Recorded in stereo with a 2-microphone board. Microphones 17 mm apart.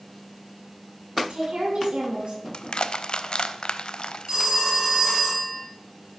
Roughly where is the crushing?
Left.